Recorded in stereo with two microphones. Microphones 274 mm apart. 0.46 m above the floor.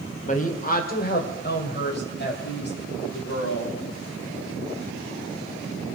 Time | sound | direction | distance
0.3 | a woman speaking | 25° left (ahead or behind) | 1.6 m